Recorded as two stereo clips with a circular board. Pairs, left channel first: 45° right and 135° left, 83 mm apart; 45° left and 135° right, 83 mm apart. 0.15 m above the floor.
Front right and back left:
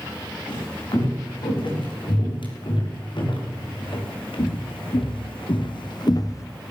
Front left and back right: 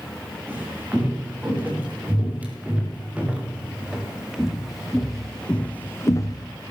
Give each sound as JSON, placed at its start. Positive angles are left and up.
{"t": 0.5, "sound": "footsteps", "azimuth_deg": -65, "distance_m": 8.5}